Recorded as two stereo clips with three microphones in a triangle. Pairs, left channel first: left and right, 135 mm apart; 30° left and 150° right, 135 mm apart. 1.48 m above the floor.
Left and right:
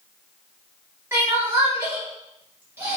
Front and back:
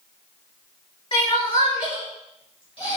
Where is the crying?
20° right, 5 m.